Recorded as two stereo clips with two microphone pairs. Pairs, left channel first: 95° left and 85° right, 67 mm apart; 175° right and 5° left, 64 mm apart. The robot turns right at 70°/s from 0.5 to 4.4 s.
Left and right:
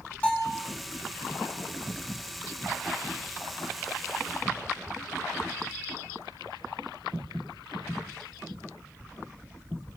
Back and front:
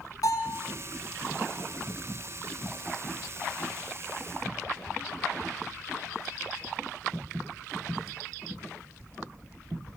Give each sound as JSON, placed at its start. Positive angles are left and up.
{"t": 0.2, "sound": "a bell", "azimuth_deg": 165, "distance_m": 7.0}